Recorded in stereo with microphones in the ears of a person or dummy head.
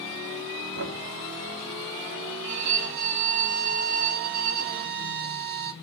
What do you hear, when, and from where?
0.8 s knocking: 70° right (ahead or behind), 1.8 m
2.4 s a violin: 65° right (ahead or behind), 2 m